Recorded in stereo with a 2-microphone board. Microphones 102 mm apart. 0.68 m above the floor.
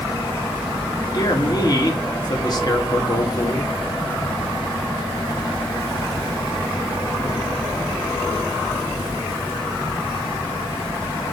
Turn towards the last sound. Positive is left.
turn(degrees=45)  # may be behind; listen again after turning